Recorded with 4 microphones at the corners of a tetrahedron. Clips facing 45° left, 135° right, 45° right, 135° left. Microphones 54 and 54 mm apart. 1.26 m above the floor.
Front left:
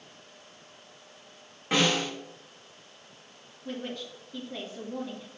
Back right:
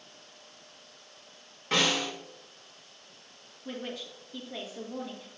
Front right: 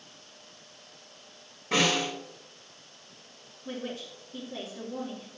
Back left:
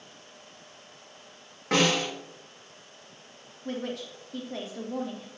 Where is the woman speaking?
140° left, 1.8 m.